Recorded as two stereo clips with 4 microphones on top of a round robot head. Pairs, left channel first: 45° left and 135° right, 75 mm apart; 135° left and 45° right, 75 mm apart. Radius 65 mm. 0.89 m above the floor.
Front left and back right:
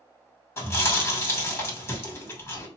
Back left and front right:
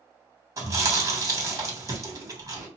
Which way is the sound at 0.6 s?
5° right.